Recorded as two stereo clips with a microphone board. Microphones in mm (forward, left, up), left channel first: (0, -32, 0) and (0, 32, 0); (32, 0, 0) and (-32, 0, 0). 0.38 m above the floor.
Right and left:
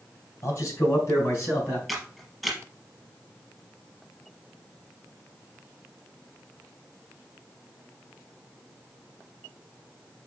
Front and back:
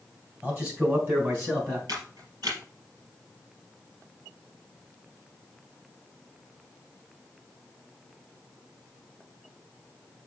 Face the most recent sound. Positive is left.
turn(degrees=-175)